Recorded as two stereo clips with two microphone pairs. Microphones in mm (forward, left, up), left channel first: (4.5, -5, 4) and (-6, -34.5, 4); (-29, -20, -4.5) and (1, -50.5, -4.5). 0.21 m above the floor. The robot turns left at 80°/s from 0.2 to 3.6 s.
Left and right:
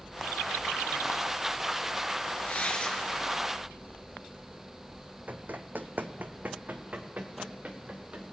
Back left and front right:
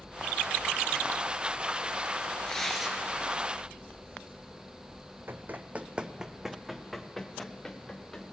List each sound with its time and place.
2.5 s tearing paper: 65° left, 2.5 m; by 3.0 s 25° left, 2.5 m
5.3 s running footsteps: 80° right, 0.8 m; by 8.2 s 150° right, 1.9 m